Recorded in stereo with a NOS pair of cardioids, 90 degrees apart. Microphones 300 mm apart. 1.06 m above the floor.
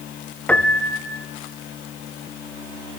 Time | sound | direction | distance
0.5 | a piano | 5° left | 0.7 m